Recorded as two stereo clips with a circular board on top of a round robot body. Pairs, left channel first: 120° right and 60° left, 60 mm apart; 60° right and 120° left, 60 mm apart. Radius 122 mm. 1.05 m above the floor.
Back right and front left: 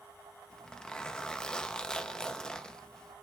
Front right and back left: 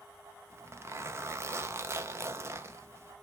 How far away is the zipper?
About 0.9 m.